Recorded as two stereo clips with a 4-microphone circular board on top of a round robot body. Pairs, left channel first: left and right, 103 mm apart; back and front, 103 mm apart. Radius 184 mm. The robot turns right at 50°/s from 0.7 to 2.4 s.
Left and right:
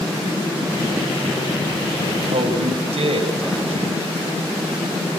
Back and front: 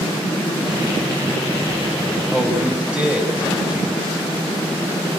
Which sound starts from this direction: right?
A man speaking, at 2.3 s.